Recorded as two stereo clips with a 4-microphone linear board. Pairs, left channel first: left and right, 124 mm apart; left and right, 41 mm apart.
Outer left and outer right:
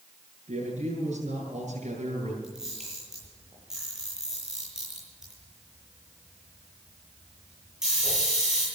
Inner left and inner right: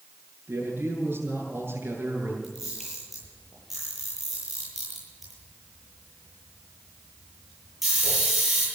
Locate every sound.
0.5 s a man speaking: 70° right (ahead or behind), 8 m
2.4 s a camera shutter: 5° right (ahead or behind), 10 m